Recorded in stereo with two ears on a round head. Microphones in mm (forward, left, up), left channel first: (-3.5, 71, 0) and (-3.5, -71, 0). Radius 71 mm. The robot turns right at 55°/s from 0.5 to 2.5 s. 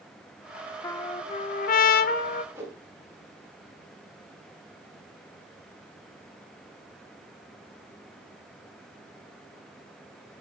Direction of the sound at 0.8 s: 20° left.